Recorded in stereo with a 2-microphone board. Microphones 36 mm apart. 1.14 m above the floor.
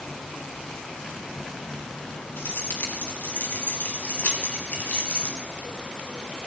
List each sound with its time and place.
2.4 s keys jangling: 80° left, 6 m; by 5.4 s 35° left (ahead or behind), 5 m